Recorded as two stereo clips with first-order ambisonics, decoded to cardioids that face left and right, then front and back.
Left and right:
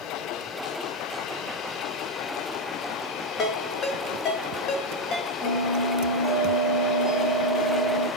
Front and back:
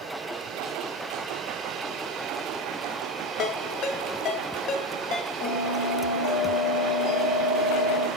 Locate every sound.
3.4 s a ringtone: 45° left, 0.5 m
5.4 s a bell: 5° left, 1.2 m